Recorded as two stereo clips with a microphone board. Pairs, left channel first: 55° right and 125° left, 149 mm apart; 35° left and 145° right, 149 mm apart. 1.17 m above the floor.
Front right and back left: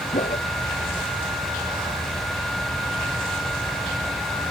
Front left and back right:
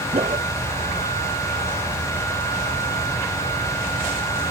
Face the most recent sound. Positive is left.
turn(degrees=-95)